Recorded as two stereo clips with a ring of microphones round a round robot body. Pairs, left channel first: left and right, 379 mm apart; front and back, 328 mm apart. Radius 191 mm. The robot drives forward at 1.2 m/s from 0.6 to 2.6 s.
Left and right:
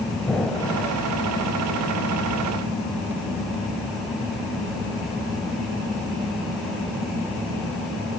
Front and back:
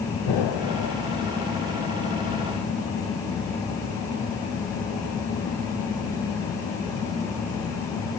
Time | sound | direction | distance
0.3 | an explosion | straight ahead | 1.2 m